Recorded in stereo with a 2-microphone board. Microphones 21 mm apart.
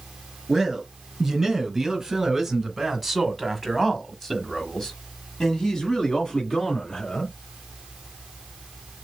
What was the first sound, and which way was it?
A man speaking, 20° right (ahead or behind).